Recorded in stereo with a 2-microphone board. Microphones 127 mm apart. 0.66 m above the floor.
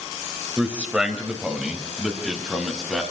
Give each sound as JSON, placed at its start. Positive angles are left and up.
{"t": 0.6, "sound": "a man speaking", "side_deg": -10, "distance_m": 2.5}